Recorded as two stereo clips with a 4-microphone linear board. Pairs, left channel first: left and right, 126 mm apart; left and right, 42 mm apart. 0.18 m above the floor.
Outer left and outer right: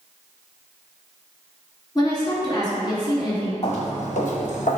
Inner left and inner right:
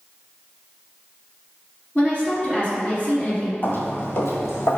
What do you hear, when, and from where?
1.9 s a woman speaking: 35° left (ahead or behind), 1.7 m
3.6 s footsteps: 55° left (ahead or behind), 1.4 m; by 4.8 s 80° left, 1.3 m